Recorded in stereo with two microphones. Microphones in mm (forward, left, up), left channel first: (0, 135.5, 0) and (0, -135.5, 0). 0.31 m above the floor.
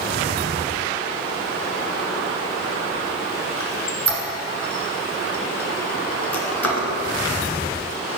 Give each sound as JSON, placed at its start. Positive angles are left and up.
{"t": 3.6, "sound": "a squeak", "side_deg": 75, "distance_m": 1.4}